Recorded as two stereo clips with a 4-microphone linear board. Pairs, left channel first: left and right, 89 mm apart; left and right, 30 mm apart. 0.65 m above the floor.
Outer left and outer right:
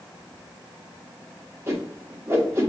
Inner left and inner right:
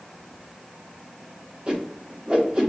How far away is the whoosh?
About 1.2 m.